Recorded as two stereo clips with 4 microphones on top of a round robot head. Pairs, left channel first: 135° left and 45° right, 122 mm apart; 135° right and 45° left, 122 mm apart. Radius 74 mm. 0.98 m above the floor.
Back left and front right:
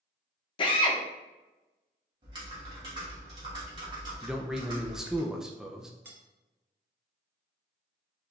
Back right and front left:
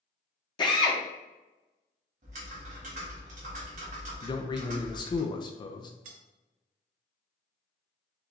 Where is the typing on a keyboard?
10° left, 1.5 m.